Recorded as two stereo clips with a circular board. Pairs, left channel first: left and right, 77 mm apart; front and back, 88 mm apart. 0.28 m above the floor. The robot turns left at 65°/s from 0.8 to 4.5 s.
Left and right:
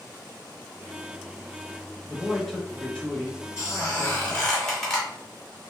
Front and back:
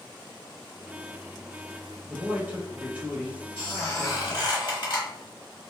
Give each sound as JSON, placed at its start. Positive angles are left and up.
{"t": 2.1, "sound": "a man speaking", "azimuth_deg": -165, "distance_m": 0.9}
{"t": 3.6, "sound": "a squeak", "azimuth_deg": 65, "distance_m": 1.3}